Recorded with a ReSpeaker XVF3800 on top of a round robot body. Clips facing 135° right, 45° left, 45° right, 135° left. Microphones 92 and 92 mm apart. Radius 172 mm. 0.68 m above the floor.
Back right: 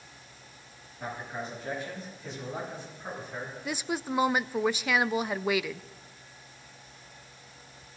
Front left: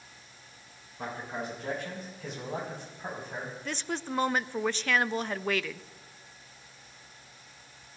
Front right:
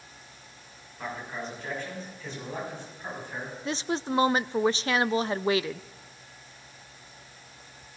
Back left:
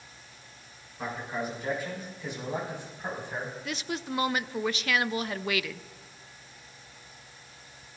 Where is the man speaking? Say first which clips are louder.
Front left 1 dB, back left 2 dB; 55° left, 6.5 m; by 3.5 s 70° left, 5.5 m.